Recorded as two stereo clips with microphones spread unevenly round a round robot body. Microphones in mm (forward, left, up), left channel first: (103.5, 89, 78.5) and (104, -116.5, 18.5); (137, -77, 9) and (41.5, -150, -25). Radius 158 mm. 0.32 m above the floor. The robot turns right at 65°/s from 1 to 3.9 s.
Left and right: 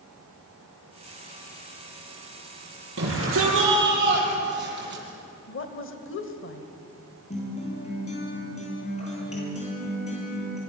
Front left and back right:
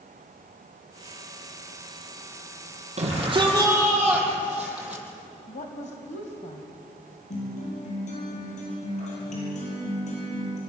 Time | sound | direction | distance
3.0 | a shout | 120° right | 9 m
5.5 | a woman speaking | 80° left | 2 m
7.3 | a guitar | 35° left | 10 m